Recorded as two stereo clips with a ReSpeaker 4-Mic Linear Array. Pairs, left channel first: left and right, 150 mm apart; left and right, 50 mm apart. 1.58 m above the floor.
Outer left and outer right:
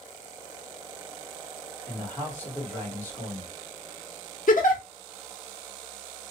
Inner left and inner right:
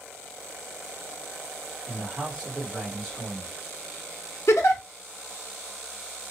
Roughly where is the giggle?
Left.